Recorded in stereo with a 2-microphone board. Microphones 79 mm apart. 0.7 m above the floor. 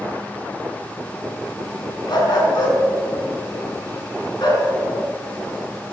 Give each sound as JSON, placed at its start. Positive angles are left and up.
{"t": 2.1, "sound": "a dog barking", "side_deg": 65, "distance_m": 3.5}